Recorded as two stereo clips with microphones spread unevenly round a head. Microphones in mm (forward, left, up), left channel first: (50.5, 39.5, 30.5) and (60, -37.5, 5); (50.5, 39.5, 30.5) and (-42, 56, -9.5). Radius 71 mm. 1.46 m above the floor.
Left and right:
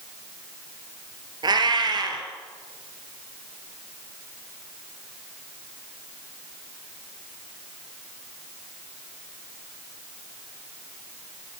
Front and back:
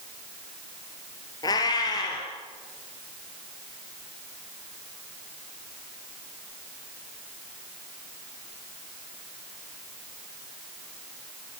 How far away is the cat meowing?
About 3 m.